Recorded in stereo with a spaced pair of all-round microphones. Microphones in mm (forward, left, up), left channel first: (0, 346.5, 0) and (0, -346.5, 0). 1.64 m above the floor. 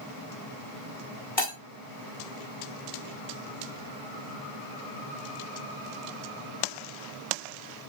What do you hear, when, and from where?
1.4 s breaking glass: 35° left (ahead or behind), 2.5 m